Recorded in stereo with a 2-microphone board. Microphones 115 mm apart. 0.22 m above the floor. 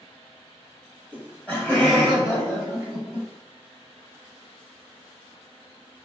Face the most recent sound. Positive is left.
turn(degrees=5)  # may be behind; listen again after turning